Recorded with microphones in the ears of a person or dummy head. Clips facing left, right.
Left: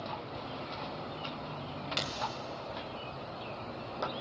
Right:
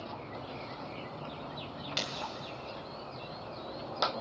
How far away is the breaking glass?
About 1.7 m.